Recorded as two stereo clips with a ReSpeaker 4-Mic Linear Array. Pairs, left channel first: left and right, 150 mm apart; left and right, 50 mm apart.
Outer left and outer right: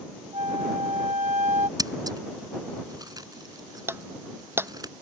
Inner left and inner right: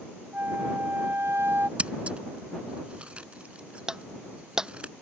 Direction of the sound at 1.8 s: 25° right (ahead or behind).